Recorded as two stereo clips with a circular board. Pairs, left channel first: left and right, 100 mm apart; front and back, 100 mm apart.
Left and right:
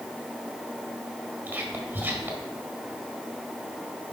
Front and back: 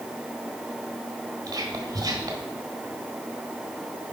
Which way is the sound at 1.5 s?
155° right.